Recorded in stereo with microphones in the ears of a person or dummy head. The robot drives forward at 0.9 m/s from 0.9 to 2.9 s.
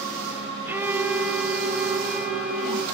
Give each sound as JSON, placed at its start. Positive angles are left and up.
{"t": 0.7, "sound": "a violin", "side_deg": -10, "distance_m": 0.5}